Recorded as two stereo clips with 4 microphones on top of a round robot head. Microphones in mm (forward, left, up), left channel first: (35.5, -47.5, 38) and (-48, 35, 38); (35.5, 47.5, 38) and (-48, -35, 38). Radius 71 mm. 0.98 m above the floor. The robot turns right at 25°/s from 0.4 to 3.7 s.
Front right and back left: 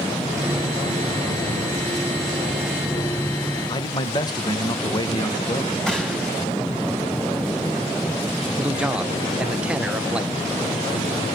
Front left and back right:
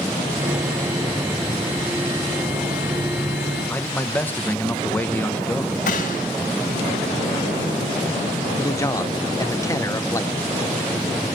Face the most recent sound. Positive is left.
turn(degrees=65)